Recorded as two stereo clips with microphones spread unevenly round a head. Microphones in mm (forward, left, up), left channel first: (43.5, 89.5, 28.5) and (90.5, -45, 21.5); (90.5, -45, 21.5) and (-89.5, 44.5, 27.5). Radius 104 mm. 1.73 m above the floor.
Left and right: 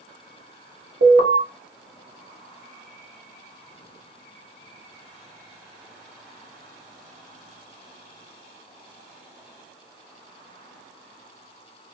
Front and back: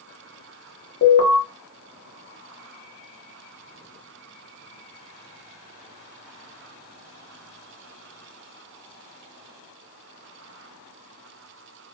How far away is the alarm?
About 1.0 m.